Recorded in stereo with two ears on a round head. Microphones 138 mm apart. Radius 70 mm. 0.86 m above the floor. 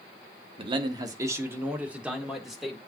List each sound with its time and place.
0.6 s a man speaking: 35° right (ahead or behind), 1.3 m; by 2.8 s centre (ahead or behind), 2 m